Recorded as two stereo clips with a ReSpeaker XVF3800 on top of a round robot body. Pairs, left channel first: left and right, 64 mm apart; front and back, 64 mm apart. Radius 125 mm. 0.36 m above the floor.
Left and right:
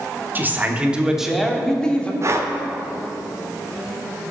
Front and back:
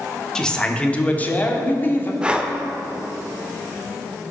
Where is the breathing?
110° right, 1.1 m.